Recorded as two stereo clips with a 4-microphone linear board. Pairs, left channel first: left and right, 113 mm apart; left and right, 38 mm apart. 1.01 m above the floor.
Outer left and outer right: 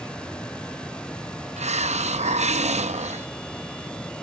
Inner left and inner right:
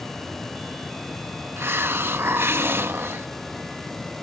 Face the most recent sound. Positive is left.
turn(degrees=-80)